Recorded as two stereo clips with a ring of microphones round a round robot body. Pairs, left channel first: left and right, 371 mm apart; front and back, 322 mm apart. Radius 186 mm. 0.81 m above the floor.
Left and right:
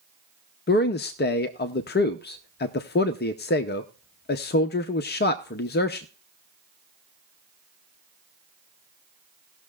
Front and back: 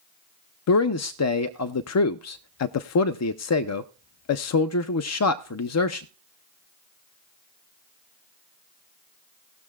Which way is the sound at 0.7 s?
30° left.